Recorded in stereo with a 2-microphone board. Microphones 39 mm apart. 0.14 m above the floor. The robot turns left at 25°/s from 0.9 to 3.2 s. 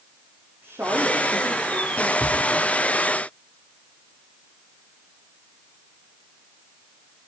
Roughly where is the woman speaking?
Right.